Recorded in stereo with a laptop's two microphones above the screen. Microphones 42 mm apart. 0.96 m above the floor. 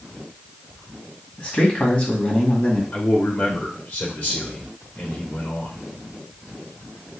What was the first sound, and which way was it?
A man speaking, 40° left (ahead or behind).